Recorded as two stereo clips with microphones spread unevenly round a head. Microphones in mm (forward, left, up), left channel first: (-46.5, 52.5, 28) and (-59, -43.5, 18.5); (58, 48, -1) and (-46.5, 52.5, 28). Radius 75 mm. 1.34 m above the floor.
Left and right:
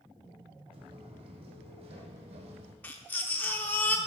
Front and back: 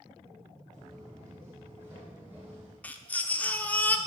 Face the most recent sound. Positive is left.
turn(degrees=90)